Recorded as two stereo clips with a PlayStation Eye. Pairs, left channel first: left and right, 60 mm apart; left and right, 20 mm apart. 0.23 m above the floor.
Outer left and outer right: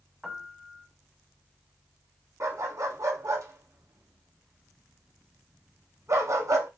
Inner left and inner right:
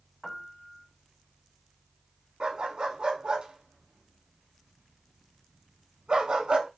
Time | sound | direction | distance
0.2 | a piano | 10° right (ahead or behind) | 0.8 m
2.4 | a dog barking | 55° right (ahead or behind) | 0.8 m